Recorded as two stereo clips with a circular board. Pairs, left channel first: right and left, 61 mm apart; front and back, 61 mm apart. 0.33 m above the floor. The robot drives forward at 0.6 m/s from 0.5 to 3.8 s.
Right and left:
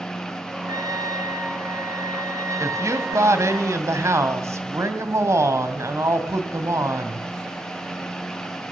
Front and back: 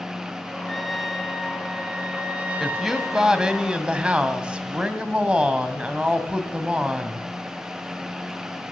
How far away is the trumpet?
About 2.5 m.